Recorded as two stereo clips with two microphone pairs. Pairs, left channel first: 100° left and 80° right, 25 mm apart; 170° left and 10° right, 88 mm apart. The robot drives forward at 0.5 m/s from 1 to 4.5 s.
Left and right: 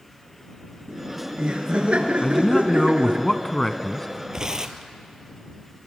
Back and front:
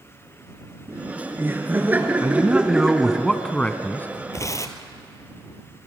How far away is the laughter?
About 2.5 m.